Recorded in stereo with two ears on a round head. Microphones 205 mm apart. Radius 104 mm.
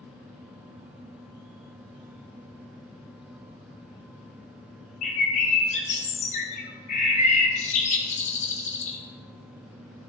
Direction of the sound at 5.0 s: 30° left (ahead or behind).